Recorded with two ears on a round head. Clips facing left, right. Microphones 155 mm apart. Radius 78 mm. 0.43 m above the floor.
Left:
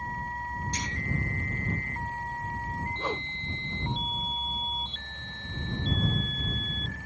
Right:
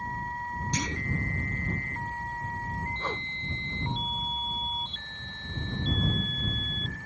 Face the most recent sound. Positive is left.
turn(degrees=10)  # may be behind; listen again after turning